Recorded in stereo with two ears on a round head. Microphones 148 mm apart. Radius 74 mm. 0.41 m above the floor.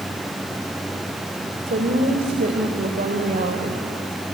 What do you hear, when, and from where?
1.7 s a woman speaking: 50° right (ahead or behind), 1.9 m